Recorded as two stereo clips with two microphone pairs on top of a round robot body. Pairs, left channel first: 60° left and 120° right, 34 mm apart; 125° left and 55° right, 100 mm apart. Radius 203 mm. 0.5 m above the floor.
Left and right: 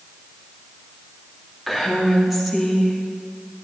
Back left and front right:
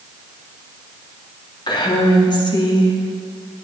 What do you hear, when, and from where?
1.7 s a woman speaking: 155° left, 2.0 m